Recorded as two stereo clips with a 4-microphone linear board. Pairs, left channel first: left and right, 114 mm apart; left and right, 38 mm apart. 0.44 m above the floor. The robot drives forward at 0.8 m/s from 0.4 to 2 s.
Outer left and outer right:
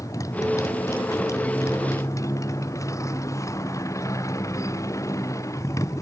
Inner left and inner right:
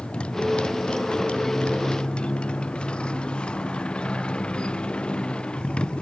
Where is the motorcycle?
30° left (ahead or behind); by 6.0 s 25° left (ahead or behind).